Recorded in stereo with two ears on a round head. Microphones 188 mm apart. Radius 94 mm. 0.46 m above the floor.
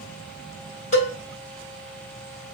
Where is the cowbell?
30° left (ahead or behind), 1.5 m.